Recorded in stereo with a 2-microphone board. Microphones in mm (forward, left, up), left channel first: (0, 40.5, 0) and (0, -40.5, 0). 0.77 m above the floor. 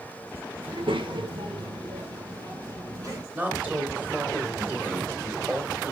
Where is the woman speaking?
20° right (ahead or behind), 2.5 m.